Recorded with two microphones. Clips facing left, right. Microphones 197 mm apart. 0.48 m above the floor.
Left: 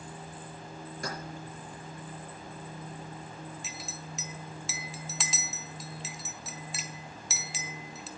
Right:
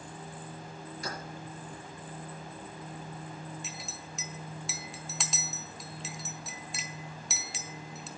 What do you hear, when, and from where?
1.0 s keys jangling: 55° left (ahead or behind), 5.5 m
3.6 s a clink: centre (ahead or behind), 1.1 m